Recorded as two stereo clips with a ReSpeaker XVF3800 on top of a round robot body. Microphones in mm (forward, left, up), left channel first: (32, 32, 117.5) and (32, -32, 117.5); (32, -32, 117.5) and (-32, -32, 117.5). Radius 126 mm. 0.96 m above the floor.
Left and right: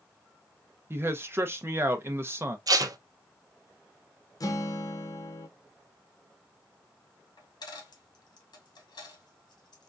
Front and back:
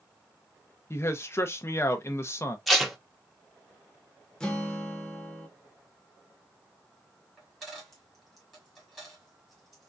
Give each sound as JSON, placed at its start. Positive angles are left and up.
{"t": 0.9, "sound": "a man speaking", "azimuth_deg": -45, "distance_m": 0.6}
{"t": 2.7, "sound": "tape being pulled", "azimuth_deg": -90, "distance_m": 0.8}
{"t": 4.4, "sound": "a guitar", "azimuth_deg": 80, "distance_m": 1.0}
{"t": 7.4, "sound": "a dropped coin", "azimuth_deg": 95, "distance_m": 1.4}